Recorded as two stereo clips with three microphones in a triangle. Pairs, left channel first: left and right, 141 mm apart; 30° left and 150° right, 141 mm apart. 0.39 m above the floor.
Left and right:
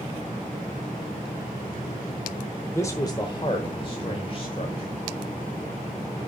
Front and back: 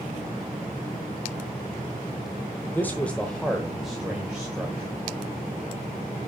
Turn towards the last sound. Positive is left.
turn(degrees=130)